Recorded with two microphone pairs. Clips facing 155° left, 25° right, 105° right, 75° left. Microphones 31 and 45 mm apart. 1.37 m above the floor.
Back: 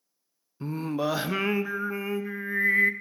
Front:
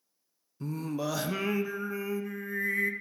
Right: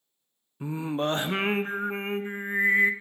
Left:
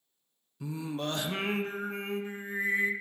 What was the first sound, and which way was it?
Singing, 155° right.